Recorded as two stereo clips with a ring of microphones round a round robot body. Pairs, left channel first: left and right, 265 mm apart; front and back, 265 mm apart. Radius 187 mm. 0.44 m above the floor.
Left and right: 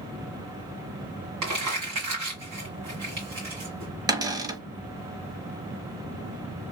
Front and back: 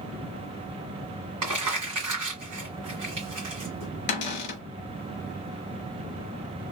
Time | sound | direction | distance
1.4 | crumpling | 130° right | 1.8 m
4.1 | a cupboard door | 15° right | 0.9 m